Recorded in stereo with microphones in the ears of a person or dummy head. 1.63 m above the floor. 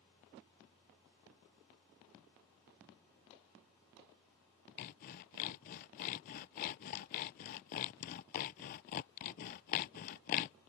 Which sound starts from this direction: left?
Sawing, at 4.8 s.